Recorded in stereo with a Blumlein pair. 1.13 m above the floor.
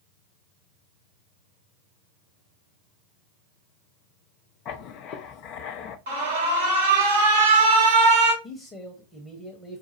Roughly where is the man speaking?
Ahead.